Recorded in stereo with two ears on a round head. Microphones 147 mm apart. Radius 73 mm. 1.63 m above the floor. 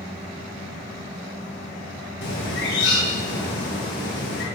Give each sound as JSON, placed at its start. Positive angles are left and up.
{"t": 2.2, "sound": "a bird", "side_deg": 75, "distance_m": 7.0}